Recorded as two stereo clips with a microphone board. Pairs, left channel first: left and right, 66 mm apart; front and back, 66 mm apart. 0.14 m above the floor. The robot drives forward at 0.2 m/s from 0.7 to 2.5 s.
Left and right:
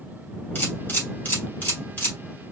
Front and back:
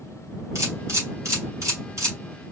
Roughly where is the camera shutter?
Behind left.